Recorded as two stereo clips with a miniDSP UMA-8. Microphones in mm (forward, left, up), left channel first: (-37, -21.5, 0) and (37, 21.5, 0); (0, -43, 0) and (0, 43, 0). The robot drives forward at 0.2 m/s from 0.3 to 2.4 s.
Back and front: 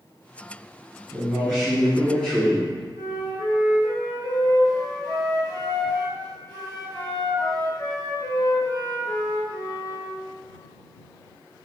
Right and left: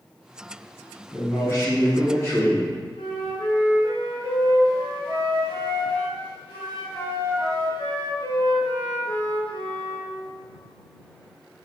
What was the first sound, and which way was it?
A man speaking, 65° right.